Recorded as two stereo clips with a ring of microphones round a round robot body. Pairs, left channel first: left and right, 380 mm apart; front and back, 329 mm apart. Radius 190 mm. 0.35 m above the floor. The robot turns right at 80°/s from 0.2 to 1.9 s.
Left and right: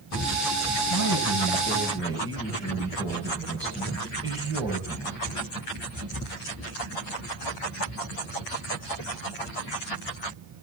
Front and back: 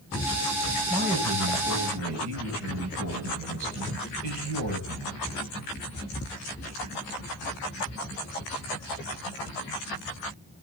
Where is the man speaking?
110° left, 6 m; by 5.2 s 170° right, 6 m.